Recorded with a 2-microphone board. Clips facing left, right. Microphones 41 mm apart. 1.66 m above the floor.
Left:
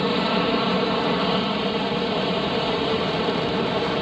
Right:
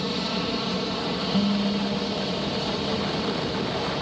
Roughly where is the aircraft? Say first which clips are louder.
Left 6 dB; left.